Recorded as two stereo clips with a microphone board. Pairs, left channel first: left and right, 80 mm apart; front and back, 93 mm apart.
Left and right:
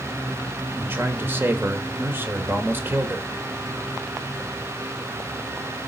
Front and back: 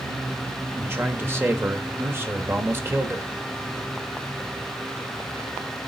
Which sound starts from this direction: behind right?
A man speaking, at 0.8 s.